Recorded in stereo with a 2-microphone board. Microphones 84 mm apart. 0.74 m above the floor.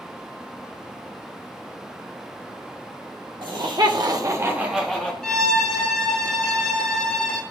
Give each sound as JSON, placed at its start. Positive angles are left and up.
{"t": 3.4, "sound": "laughter", "side_deg": -70, "distance_m": 1.8}
{"t": 5.2, "sound": "a violin", "side_deg": 10, "distance_m": 1.2}